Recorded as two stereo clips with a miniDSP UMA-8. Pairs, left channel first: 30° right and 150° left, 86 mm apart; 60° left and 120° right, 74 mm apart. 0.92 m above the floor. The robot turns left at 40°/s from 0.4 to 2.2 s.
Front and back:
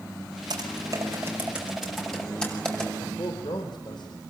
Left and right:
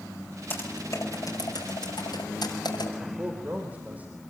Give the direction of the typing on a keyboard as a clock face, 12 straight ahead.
8 o'clock.